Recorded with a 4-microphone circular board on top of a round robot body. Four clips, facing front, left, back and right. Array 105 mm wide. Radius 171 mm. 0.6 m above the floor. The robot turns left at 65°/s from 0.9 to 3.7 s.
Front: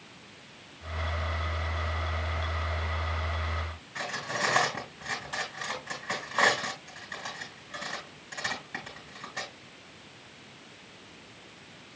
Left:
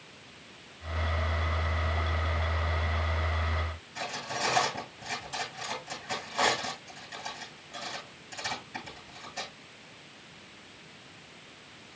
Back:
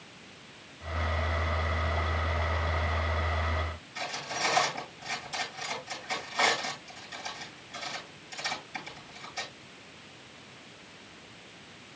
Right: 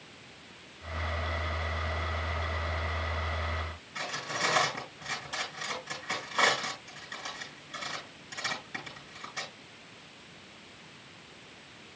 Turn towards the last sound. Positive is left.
turn(degrees=-15)